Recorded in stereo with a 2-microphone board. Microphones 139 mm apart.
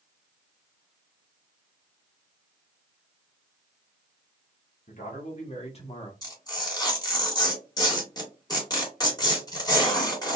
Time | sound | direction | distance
4.9 | a man speaking | 60° left (ahead or behind) | 1.7 m
6.2 | tearing paper | 25° left (ahead or behind) | 2.0 m